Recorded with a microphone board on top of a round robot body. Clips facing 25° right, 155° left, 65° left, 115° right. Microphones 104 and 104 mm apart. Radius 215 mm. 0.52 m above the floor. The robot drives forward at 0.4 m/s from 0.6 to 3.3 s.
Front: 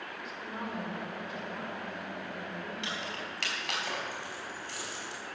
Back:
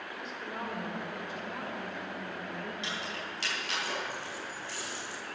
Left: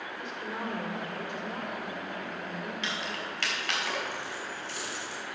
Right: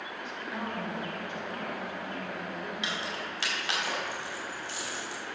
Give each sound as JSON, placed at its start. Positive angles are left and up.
{"t": 0.2, "sound": "a woman speaking", "azimuth_deg": 65, "distance_m": 3.0}
{"t": 2.8, "sound": "keys jangling", "azimuth_deg": -35, "distance_m": 4.0}